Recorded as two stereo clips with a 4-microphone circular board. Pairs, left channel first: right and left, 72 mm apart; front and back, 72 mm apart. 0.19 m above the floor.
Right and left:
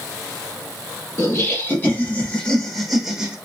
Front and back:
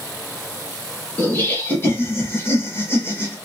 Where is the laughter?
50° right, 1.6 m; by 3.4 s 20° left, 1.2 m.